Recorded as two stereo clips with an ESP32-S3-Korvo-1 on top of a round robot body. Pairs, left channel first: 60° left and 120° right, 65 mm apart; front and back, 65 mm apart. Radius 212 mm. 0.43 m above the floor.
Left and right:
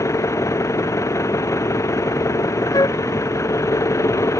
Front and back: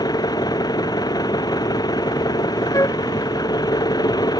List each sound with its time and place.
0.0 s an engine running: 15° left
2.7 s a flute: 35° left